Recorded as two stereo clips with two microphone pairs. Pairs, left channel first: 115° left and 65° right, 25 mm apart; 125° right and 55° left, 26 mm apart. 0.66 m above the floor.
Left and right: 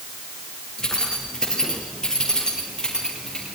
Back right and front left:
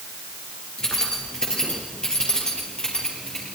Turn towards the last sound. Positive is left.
turn(degrees=175)